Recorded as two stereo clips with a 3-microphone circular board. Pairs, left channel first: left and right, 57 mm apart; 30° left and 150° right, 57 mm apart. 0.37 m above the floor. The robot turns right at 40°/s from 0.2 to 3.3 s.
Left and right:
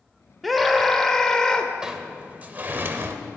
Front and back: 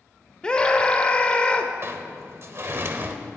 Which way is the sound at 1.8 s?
165° right.